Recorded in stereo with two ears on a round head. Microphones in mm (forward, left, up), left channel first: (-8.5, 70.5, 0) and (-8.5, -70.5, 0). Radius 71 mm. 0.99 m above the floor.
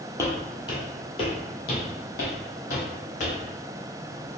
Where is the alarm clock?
No alarm clock in this recording.